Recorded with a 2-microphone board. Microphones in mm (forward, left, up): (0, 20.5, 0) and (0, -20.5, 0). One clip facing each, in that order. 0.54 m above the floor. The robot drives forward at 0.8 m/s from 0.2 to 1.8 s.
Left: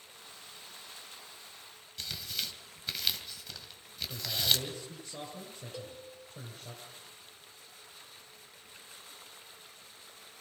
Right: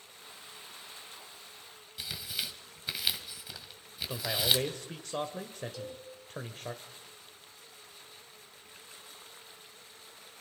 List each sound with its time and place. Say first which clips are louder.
2.0 s tearing paper: right 1 dB; 10° right (ahead or behind), 2.0 m
4.1 s a man speaking: right 2 dB; 70° right (ahead or behind), 1.9 m
5.7 s a cowbell: right 2 dB; 25° left (ahead or behind), 3.5 m